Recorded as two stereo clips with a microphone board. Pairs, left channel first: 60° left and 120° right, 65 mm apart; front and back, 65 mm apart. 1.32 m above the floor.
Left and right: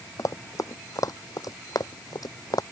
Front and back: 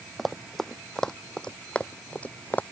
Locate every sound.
0.2 s running footsteps: 90° left; by 2.6 s 65° left